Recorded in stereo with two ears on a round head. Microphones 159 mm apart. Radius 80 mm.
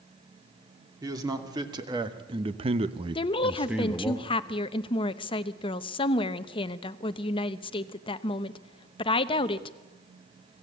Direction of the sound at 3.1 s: 30° left (ahead or behind).